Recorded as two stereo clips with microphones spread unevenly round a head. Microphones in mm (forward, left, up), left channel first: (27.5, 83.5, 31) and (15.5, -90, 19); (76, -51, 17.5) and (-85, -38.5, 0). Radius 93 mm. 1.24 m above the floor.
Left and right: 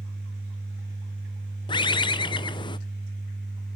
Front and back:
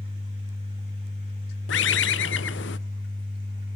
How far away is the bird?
About 0.7 m.